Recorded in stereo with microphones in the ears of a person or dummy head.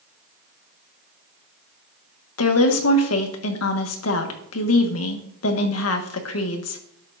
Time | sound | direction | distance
2.4 | a woman speaking | 80° left | 1.5 m